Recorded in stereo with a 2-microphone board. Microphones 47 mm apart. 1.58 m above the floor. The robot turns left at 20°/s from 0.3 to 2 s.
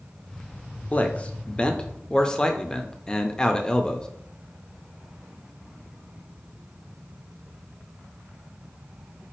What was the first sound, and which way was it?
A man speaking, 30° left (ahead or behind).